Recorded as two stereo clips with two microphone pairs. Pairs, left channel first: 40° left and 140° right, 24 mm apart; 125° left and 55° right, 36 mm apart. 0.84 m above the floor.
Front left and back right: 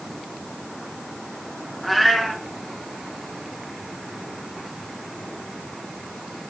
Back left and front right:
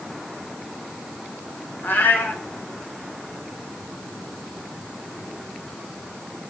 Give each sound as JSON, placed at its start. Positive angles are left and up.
{"t": 1.8, "sound": "a cat meowing", "azimuth_deg": 130, "distance_m": 3.0}